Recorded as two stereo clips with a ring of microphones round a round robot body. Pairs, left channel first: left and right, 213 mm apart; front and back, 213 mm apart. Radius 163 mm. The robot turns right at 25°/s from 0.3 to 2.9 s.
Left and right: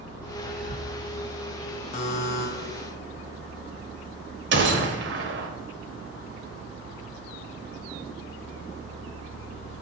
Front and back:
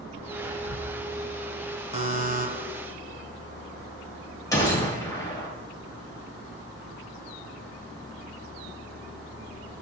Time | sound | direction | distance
0.4 | whispering | 145° right | 3 m
1.9 | a buzzer | 130° left | 1.5 m
4.5 | a gunshot | 75° right | 1.0 m